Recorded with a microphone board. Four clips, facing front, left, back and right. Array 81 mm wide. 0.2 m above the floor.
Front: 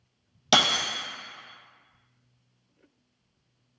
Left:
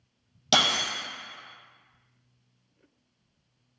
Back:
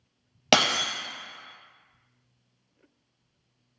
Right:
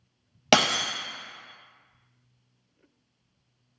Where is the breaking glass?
130° right, 0.7 m.